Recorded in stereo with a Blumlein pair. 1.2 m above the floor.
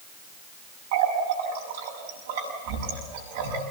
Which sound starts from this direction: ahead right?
A running tap, at 0.9 s.